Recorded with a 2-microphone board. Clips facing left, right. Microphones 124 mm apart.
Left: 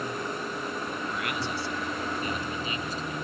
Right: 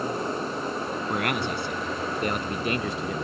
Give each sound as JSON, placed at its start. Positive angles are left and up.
{"t": 1.1, "sound": "a man speaking", "side_deg": -60}